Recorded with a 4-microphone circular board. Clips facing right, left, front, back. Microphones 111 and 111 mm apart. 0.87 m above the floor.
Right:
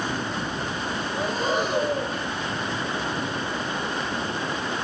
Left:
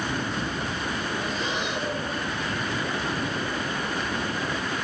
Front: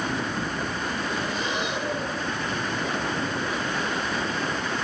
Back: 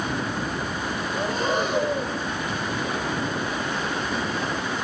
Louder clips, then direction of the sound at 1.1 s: Right 5 dB, back 4 dB; 135° right.